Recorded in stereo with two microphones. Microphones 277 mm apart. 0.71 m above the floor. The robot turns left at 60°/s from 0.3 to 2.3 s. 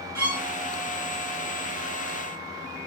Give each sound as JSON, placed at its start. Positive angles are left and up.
{"t": 0.1, "sound": "a violin", "side_deg": -70, "distance_m": 6.0}